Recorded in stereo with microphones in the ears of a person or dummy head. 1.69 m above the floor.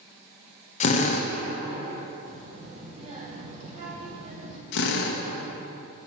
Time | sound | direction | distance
0.8 | a drill | 35° left (ahead or behind) | 1.0 m
2.2 | a child speaking | 35° right (ahead or behind) | 2.5 m
4.7 | a drill | 60° left (ahead or behind) | 1.4 m